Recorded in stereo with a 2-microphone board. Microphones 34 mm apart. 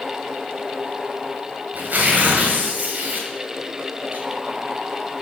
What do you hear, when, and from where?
1.7 s tearing paper: 65° right (ahead or behind), 2 m